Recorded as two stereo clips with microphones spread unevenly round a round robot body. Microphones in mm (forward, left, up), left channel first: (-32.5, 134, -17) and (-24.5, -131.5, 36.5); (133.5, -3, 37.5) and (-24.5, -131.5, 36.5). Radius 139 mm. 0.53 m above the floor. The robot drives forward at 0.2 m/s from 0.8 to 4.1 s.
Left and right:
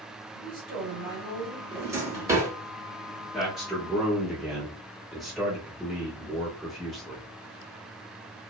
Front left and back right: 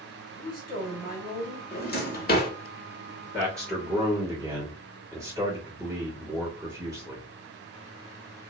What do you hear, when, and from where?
0.3 s a woman speaking: 40° left, 1.5 m; by 1.6 s 45° left, 1.4 m
1.7 s a drawer: 5° right, 0.9 m
3.3 s a man speaking: 160° left, 1.4 m; by 7.3 s 165° left, 1.5 m